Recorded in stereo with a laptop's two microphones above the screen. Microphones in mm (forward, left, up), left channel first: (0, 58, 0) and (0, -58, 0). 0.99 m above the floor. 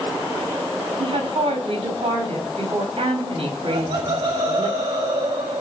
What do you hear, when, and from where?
1.0 s a woman speaking: 60° right (ahead or behind), 5 m
3.7 s laughter: 50° right (ahead or behind), 1.7 m